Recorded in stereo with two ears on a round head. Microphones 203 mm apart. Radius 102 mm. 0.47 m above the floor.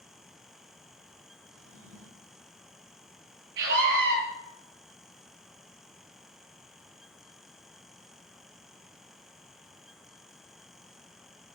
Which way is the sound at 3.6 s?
55° right (ahead or behind).